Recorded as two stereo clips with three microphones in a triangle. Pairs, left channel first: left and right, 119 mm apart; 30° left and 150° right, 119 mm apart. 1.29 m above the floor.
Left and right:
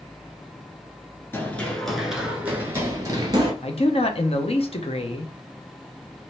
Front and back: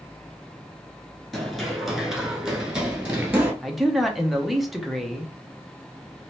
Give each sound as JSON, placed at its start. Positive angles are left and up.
{"t": 1.3, "sound": "running footsteps", "azimuth_deg": 120, "distance_m": 1.3}
{"t": 3.6, "sound": "a man speaking", "azimuth_deg": 120, "distance_m": 0.9}